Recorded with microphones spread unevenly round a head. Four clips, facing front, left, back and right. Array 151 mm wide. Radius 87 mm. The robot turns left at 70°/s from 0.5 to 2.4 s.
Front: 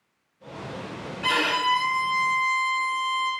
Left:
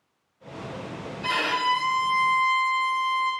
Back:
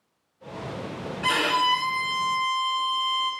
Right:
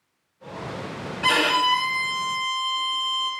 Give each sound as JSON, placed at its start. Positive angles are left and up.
{"t": 1.2, "sound": "a violin", "azimuth_deg": -120, "distance_m": 0.8}